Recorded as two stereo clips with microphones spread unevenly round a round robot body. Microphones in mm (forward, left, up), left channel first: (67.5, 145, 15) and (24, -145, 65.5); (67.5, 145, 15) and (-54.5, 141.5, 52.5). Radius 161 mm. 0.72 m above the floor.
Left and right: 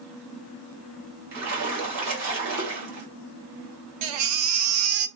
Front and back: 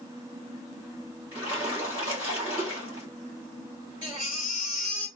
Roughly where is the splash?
Right.